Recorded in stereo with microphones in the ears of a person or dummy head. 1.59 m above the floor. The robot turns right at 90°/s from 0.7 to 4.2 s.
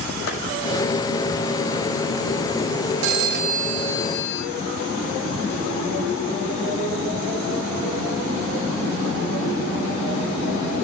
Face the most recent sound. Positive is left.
turn(degrees=10)